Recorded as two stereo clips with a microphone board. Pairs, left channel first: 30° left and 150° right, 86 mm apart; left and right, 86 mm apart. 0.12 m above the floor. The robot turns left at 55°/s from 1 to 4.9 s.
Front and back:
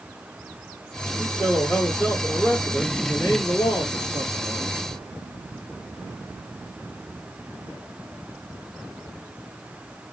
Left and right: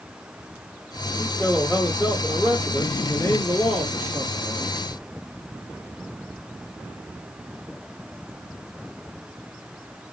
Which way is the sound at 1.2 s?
175° right.